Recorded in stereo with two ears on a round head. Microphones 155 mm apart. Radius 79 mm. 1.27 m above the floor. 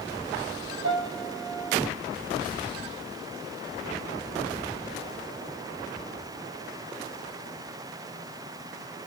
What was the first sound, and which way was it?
A piano, 80° right.